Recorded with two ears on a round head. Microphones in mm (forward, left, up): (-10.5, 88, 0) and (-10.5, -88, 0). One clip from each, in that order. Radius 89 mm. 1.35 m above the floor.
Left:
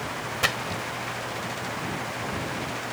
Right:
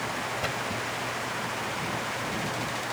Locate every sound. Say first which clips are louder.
0.4 s a splash: left 3 dB; 60° left (ahead or behind)